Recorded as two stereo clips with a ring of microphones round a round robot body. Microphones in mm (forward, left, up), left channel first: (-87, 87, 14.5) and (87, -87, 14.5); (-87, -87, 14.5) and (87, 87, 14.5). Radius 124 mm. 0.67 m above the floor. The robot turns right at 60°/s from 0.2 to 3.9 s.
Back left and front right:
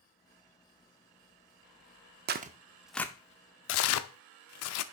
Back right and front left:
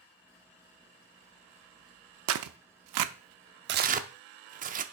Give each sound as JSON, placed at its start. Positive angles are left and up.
{"t": 2.3, "sound": "tearing paper", "azimuth_deg": 5, "distance_m": 0.6}